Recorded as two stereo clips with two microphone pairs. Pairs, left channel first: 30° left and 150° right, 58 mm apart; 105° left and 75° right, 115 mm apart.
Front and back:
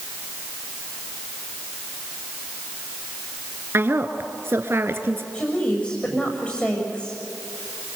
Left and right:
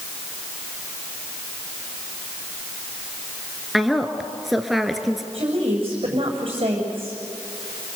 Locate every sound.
3.7 s a woman speaking: 165° right, 1.9 m
5.3 s a woman speaking: 40° right, 8 m